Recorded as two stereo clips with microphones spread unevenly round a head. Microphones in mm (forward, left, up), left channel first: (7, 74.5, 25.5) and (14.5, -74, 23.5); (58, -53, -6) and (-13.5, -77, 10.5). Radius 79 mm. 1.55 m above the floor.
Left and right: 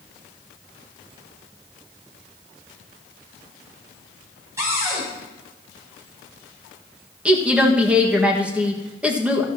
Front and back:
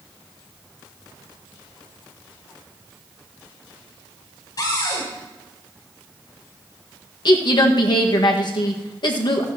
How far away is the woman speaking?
About 1.8 m.